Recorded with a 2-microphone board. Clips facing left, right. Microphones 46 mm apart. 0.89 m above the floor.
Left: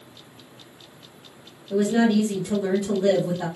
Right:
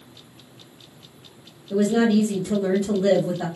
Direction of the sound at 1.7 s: 10° right (ahead or behind).